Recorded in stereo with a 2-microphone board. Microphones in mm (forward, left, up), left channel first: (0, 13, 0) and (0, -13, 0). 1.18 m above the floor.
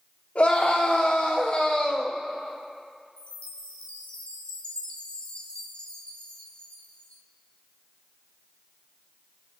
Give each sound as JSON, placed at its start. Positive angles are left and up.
{"t": 0.3, "sound": "a scream", "side_deg": 75, "distance_m": 3.0}
{"t": 3.2, "sound": "a chime", "side_deg": 55, "distance_m": 2.0}